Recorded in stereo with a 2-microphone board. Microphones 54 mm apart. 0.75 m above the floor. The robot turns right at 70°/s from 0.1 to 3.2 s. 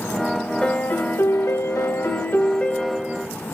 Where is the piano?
20° left, 0.8 m; by 3.3 s 160° right, 0.8 m.